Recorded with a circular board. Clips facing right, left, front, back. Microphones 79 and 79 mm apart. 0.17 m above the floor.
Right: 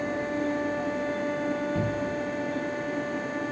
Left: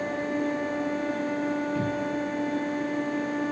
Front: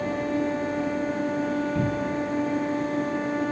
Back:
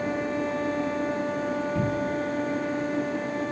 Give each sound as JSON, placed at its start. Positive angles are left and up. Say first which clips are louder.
{"t": 1.8, "sound": "a cupboard door", "louder": "left 1 dB, even", "azimuth_deg": -120, "distance_m": 1.0}